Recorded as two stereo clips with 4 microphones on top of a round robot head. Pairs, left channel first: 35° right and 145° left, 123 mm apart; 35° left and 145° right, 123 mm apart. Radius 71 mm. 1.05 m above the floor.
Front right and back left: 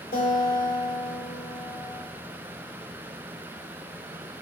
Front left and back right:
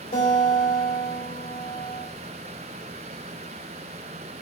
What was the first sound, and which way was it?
A guitar, 15° right.